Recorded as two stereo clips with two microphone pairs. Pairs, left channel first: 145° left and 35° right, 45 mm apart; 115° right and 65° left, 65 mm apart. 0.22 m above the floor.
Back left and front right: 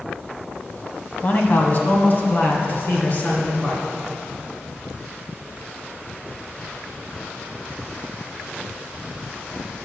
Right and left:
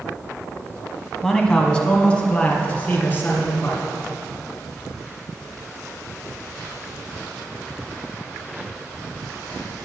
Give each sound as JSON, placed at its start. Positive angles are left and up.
{"t": 1.2, "sound": "a man speaking", "azimuth_deg": 165, "distance_m": 1.2}